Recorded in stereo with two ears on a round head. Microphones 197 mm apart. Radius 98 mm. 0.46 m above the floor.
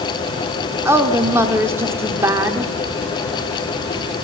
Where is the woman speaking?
10° right (ahead or behind), 1.0 m.